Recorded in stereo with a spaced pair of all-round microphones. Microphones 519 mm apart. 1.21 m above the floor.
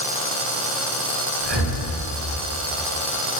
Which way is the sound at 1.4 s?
50° right (ahead or behind).